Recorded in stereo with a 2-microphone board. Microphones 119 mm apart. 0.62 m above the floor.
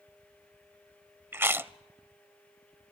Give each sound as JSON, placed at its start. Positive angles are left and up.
{"t": 1.3, "sound": "chewing", "side_deg": -20, "distance_m": 0.6}